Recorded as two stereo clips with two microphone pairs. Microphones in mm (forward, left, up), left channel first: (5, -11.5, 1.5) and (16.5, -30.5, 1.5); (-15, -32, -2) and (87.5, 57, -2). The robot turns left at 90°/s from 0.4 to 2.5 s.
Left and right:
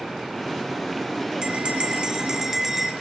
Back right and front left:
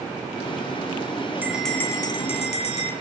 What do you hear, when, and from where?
1.4 s a bell: 30° right, 1.8 m; by 2.9 s 125° right, 1.8 m